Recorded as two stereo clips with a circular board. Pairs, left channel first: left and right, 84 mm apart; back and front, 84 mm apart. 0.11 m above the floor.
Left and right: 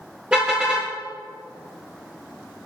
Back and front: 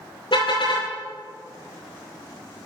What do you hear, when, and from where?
0.3 s a car horn: 170° right, 8.5 m